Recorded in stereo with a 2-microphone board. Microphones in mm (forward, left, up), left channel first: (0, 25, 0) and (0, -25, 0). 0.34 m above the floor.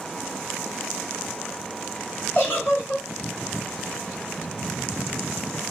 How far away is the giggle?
About 1.3 m.